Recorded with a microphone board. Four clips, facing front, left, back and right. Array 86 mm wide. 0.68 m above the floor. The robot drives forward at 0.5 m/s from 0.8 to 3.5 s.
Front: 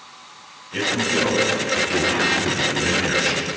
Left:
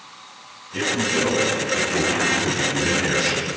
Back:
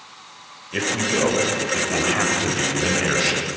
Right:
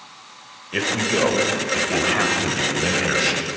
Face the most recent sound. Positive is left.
turn(degrees=-135)